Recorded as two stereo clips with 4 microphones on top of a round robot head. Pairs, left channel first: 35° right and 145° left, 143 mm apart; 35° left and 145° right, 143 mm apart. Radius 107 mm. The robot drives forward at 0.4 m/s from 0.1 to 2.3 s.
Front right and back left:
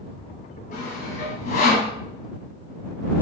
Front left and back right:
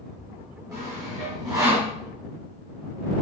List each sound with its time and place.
0.7 s sawing: 75° right, 3.5 m; by 1.9 s 80° right, 3 m